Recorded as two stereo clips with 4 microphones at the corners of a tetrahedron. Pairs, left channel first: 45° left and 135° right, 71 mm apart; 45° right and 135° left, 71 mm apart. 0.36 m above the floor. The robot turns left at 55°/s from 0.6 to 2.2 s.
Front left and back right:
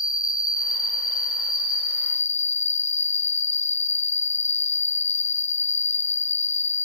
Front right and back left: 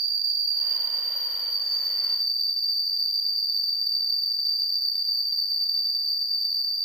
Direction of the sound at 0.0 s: 75° left.